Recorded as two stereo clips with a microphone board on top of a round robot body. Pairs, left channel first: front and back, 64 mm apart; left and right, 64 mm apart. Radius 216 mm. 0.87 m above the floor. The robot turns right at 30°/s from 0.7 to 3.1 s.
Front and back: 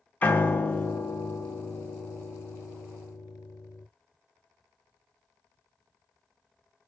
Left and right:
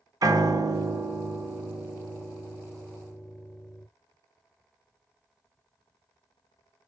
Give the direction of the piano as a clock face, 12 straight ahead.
2 o'clock.